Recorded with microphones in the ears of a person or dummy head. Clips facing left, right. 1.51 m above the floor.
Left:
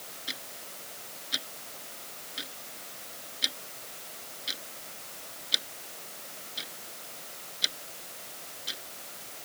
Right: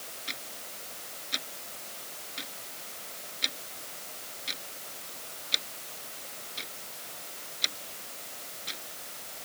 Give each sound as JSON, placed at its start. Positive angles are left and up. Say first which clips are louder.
{"t": 0.3, "sound": "ticking", "louder": "left 2 dB", "side_deg": 10}